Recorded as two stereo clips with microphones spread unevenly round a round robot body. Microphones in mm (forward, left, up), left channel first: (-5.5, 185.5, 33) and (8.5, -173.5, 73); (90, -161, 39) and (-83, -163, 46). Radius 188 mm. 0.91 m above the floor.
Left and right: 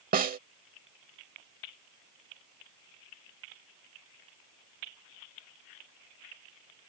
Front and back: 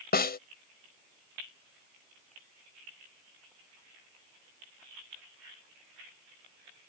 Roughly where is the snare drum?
Ahead.